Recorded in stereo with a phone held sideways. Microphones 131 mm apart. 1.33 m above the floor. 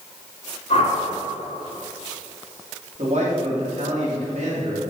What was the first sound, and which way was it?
A whoosh, 55° left (ahead or behind).